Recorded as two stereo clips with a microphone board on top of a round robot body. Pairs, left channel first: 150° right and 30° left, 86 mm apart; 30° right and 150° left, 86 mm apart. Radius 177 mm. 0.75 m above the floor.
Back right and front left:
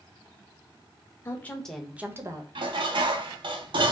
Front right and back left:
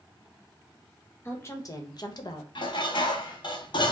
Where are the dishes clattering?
5° left, 0.7 m.